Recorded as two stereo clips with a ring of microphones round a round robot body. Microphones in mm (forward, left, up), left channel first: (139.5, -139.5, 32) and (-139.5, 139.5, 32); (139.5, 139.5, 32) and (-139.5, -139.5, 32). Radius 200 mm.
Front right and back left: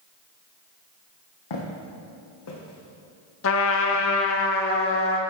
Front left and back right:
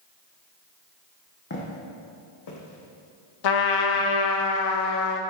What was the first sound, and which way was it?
Footsteps, 15° right.